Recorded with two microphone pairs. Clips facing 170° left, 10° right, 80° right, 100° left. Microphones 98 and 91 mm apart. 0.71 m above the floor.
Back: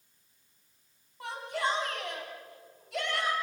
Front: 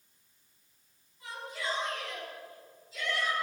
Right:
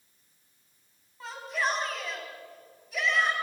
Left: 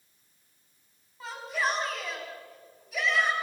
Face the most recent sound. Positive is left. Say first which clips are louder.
# back 6 dB, even
turn(degrees=-170)